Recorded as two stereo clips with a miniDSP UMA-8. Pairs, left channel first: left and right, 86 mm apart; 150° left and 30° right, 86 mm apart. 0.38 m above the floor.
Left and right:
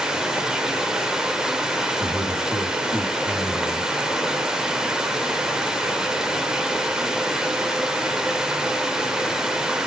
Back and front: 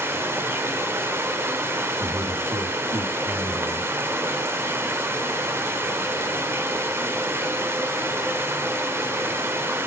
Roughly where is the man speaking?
Ahead.